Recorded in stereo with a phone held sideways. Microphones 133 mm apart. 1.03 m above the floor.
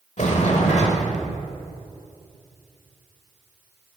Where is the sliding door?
60° left (ahead or behind), 1.1 m.